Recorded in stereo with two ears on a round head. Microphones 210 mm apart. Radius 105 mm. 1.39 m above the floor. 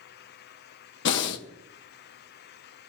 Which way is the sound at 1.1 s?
55° left (ahead or behind).